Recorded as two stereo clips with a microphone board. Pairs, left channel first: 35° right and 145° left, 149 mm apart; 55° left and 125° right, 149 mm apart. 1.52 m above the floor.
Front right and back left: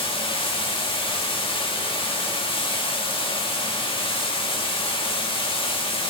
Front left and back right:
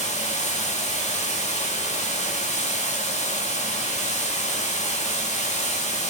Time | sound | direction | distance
0.0 | running water | 20° left | 1.9 m